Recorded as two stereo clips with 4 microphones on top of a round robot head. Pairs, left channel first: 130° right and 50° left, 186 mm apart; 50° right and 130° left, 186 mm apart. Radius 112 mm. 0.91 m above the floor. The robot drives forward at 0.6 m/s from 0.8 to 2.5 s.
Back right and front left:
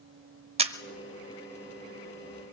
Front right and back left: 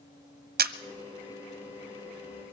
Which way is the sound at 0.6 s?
105° left.